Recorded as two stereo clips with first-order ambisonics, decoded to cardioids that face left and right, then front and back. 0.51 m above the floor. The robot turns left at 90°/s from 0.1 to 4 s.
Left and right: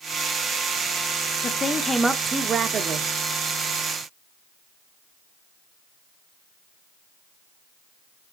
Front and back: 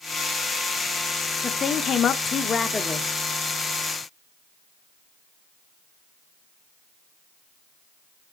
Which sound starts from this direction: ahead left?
A woman speaking, at 1.4 s.